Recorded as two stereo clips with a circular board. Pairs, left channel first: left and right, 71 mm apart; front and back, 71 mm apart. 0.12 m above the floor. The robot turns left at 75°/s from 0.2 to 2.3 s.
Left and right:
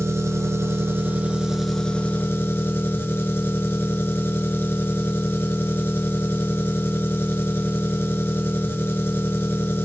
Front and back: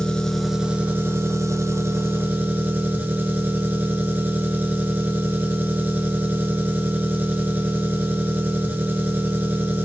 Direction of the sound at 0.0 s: 75° right.